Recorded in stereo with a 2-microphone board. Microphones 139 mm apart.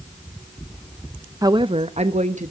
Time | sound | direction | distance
1.4 | a woman speaking | 25° right (ahead or behind) | 0.5 m